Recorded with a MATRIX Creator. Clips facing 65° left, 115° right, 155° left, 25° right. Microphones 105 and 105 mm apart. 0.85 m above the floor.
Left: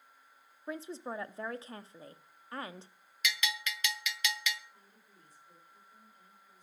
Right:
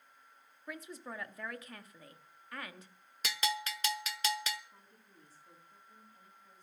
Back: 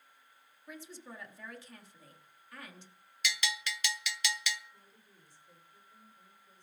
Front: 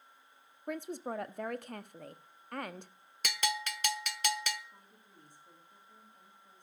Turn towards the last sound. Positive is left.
turn(degrees=-55)